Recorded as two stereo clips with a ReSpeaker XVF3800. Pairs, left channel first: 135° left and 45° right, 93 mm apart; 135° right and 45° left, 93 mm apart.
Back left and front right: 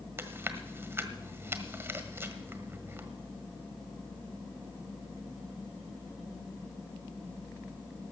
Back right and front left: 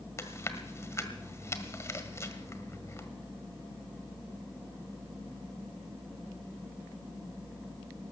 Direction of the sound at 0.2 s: 95° right.